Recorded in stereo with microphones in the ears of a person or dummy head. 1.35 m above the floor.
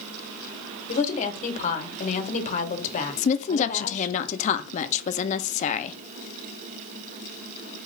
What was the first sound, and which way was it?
A woman speaking, 40° left (ahead or behind).